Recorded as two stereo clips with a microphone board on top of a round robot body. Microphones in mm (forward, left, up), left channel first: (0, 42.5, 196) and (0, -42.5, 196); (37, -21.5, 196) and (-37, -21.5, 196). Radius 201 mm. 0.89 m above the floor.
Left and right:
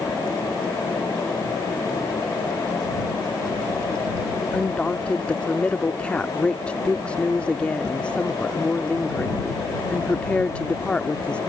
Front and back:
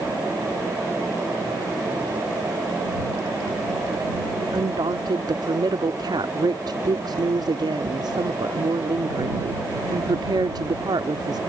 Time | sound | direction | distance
4.5 | a woman speaking | 165° left | ?